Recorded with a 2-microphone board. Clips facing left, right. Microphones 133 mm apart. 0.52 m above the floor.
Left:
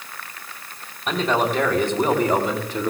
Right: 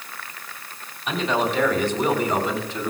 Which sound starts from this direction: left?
A man speaking, at 1.1 s.